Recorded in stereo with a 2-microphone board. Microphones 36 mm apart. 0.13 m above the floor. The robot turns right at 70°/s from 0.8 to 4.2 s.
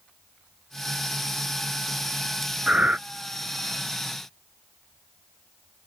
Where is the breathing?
30° right (ahead or behind); by 3.0 s 40° right (ahead or behind).